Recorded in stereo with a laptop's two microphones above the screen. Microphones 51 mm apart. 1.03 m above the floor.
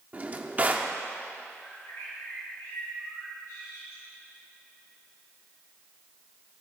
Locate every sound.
0.1 s a drawer: 30° right (ahead or behind), 1.0 m
1.6 s a bird: 75° left (ahead or behind), 3.5 m